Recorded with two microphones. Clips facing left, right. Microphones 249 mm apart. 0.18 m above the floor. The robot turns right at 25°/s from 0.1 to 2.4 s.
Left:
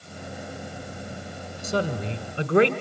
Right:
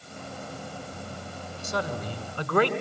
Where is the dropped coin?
No dropped coin in this recording.